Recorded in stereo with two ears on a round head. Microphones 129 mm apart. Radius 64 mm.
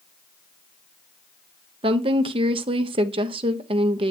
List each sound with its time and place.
1.8 s a woman speaking: 35° right (ahead or behind), 0.9 m